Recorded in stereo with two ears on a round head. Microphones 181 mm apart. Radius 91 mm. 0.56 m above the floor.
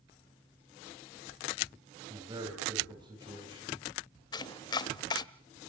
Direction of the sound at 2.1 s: 25° right (ahead or behind).